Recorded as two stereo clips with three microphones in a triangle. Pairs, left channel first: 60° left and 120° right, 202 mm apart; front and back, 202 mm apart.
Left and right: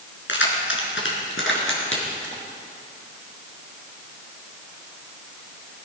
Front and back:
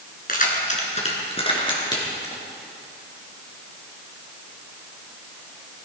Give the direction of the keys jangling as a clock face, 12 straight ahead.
11 o'clock.